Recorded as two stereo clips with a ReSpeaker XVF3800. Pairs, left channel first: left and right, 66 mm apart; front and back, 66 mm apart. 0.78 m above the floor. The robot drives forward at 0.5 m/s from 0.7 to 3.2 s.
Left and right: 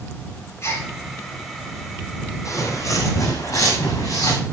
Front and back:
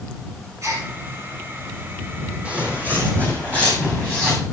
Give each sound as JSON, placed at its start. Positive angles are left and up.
{"t": 0.6, "sound": "a gasp", "azimuth_deg": 135, "distance_m": 4.5}
{"t": 2.5, "sound": "footsteps", "azimuth_deg": 110, "distance_m": 1.6}